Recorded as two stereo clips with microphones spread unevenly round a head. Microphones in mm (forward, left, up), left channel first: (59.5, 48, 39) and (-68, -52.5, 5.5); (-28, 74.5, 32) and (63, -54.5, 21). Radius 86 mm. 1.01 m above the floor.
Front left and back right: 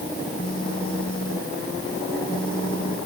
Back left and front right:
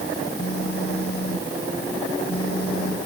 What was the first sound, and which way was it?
A phone buzzing, 100° left.